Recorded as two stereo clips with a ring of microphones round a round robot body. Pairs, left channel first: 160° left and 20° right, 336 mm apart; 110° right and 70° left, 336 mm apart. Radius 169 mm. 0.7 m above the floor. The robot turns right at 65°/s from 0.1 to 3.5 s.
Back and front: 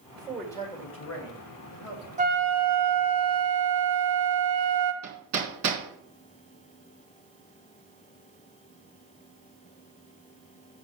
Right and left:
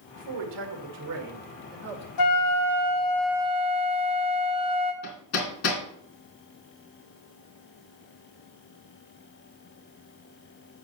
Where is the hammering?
65° right, 3.5 m.